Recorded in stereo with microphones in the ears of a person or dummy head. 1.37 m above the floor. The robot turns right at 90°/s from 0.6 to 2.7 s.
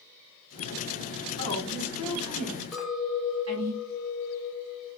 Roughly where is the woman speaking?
Behind left.